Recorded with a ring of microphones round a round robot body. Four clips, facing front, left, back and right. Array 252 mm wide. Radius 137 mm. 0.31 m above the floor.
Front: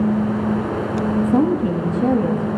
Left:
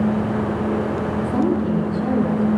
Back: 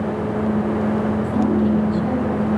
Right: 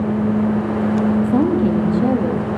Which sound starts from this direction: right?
A woman speaking, at 1.2 s.